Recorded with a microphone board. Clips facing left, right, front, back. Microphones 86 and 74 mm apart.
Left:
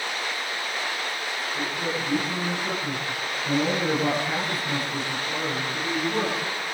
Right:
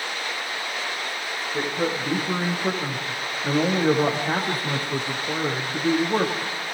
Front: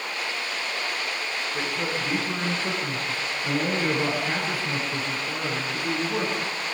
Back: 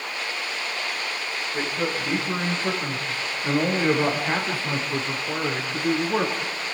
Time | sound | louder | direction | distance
1.5 | a man speaking | right 5 dB, back 3 dB | 110° right | 8.5 m